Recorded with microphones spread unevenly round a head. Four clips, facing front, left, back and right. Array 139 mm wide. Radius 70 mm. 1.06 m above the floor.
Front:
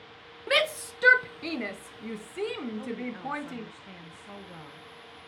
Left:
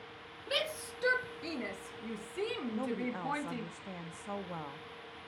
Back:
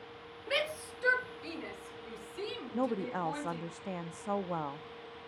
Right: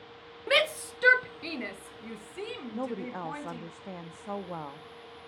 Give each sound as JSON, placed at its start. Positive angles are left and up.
{"t": 0.5, "sound": "a shout", "azimuth_deg": -55, "distance_m": 0.9}
{"t": 2.7, "sound": "a woman speaking", "azimuth_deg": -155, "distance_m": 0.8}